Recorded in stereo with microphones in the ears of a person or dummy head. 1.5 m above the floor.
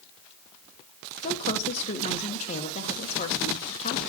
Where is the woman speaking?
40° left (ahead or behind), 1.5 m.